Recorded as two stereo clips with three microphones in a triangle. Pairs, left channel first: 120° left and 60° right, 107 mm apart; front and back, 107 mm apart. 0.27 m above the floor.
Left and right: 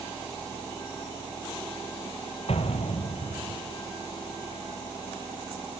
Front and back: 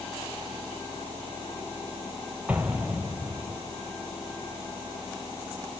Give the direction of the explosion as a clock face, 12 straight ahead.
9 o'clock.